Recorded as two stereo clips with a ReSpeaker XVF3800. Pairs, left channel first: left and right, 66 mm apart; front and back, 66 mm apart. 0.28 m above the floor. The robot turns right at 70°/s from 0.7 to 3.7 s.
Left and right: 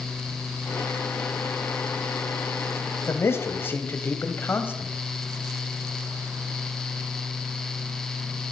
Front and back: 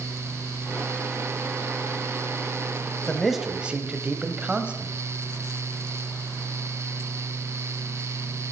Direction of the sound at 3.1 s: 75° left.